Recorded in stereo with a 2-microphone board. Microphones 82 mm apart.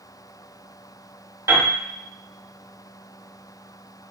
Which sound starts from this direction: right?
A piano, at 1.5 s.